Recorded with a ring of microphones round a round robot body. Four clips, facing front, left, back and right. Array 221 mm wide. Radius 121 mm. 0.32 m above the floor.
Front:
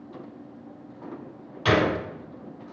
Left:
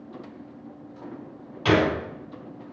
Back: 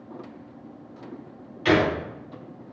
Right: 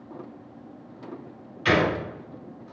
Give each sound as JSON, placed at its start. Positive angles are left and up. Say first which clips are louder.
{"t": 1.6, "sound": "a gunshot", "louder": "left 1 dB, back 1 dB", "azimuth_deg": 45, "distance_m": 3.0}